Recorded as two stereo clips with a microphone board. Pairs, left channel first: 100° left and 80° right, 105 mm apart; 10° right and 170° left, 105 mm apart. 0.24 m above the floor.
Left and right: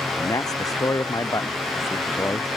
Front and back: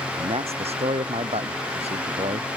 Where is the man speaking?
155° left; by 2.5 s 165° left.